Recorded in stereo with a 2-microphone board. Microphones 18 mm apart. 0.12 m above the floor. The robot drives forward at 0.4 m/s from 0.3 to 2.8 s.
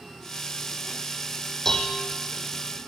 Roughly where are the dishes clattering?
Left.